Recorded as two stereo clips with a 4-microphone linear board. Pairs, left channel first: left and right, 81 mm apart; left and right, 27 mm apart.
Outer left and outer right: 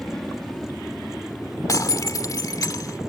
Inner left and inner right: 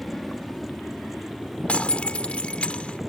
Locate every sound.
0.0 s an aircraft: 5° left (ahead or behind); by 3.1 s centre (ahead or behind)
1.7 s breaking glass: 45° left (ahead or behind)